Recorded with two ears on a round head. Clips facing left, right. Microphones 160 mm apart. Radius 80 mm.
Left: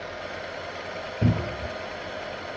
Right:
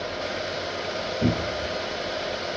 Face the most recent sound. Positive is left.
turn(degrees=25)  # may be behind; listen again after turning